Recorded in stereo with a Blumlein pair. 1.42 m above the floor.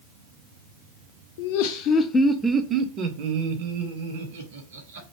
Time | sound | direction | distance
1.4 | laughter | 55° left | 0.7 m